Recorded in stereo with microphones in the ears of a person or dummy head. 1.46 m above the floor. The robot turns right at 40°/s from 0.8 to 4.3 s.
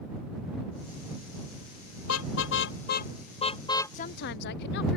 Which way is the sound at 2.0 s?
85° left.